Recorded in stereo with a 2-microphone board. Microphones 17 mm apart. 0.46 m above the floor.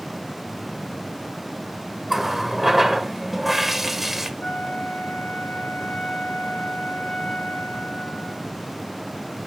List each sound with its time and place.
2.1 s a running tap: 5° right (ahead or behind), 1.0 m
4.4 s a flute: 70° left (ahead or behind), 3.5 m